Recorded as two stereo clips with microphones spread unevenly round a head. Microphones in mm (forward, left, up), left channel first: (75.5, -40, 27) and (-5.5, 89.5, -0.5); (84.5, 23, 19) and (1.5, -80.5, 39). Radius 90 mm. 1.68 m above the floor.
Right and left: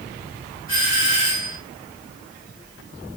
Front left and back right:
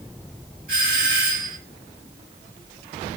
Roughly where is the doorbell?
Behind.